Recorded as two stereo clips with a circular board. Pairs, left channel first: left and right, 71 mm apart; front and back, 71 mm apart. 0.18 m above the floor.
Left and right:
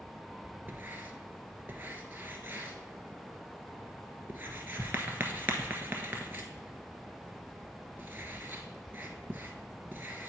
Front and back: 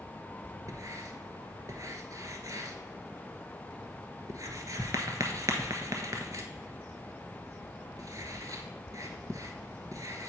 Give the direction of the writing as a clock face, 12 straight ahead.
5 o'clock.